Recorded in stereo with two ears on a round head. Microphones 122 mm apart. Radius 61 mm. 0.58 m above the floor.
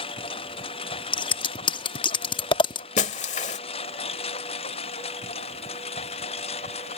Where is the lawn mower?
40° left (ahead or behind); by 7.0 s 45° left (ahead or behind).